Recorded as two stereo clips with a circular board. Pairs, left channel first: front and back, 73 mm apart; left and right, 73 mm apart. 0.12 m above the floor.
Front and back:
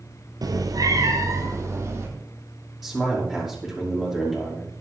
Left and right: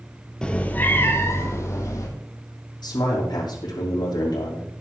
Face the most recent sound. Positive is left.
turn(degrees=90)